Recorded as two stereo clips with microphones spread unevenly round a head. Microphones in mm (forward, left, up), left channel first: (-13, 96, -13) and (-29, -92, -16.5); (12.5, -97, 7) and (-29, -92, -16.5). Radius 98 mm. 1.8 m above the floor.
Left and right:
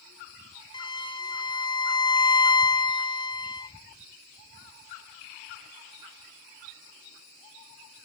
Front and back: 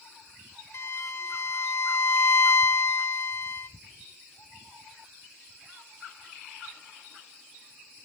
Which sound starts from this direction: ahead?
A violin, at 0.7 s.